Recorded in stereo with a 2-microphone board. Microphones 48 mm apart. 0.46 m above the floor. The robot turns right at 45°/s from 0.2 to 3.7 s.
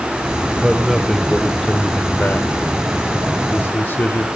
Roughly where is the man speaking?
Ahead.